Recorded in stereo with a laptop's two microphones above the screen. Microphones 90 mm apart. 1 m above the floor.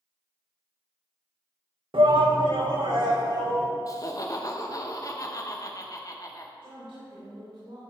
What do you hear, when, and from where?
1.9 s a shout: 75° right (ahead or behind), 0.8 m; by 3.7 s 55° right (ahead or behind), 2.5 m
3.9 s laughter: 40° left (ahead or behind), 0.8 m
6.6 s a woman speaking: 90° right, 3 m